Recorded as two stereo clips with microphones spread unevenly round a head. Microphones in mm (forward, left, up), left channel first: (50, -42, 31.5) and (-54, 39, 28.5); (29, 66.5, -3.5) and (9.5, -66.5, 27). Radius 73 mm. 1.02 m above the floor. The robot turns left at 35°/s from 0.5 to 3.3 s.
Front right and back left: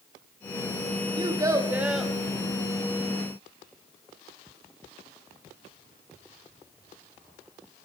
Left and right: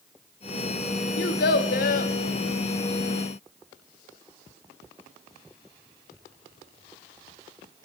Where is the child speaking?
85° left, 0.8 m; by 2.1 s 50° left, 0.8 m.